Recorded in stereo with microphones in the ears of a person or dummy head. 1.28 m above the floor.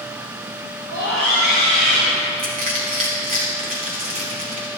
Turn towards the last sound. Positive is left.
turn(degrees=-40)  # may be behind; listen again after turning